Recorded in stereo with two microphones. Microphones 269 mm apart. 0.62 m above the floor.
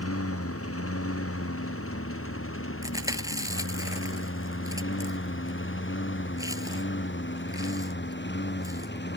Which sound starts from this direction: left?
A lawn mower, at 0.0 s.